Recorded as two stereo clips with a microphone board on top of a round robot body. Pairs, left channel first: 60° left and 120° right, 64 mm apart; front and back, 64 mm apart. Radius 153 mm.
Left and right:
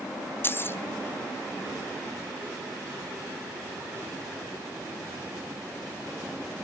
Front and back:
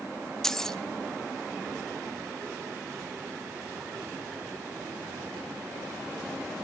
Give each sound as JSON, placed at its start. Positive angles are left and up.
{"t": 0.4, "sound": "keys jangling", "azimuth_deg": 80, "distance_m": 0.8}